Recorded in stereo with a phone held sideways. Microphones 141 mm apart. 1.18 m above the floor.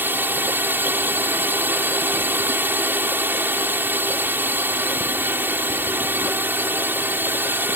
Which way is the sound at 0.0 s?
15° right (ahead or behind).